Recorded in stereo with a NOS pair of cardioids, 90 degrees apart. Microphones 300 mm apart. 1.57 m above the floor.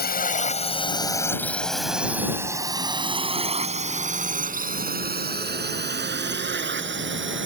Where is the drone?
30° left; by 7.5 s 40° right.